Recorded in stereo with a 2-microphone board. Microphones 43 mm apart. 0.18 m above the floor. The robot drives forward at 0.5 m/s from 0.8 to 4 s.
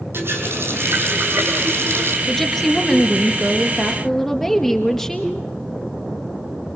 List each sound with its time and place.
0.1 s a running tap: 65° right (ahead or behind), 5.5 m; by 2.2 s 75° right (ahead or behind), 5.5 m
2.3 s a woman speaking: 5° left (ahead or behind), 3 m